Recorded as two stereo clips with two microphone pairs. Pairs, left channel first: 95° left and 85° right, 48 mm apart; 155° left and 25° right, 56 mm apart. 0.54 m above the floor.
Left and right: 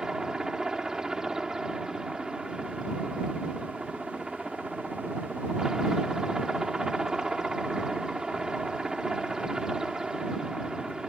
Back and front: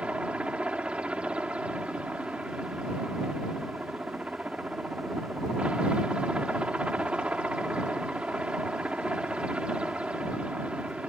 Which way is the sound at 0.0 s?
40° right.